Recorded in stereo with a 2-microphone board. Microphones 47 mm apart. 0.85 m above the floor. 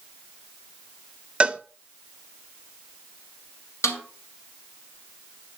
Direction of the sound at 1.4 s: 25° right (ahead or behind).